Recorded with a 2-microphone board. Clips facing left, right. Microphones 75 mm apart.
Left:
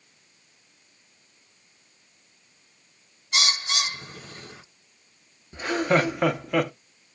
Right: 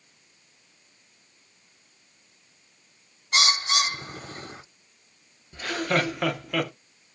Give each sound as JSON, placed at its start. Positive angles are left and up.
{"t": 3.3, "sound": "a bird", "side_deg": -40, "distance_m": 0.8}
{"t": 5.5, "sound": "laughter", "side_deg": 20, "distance_m": 0.6}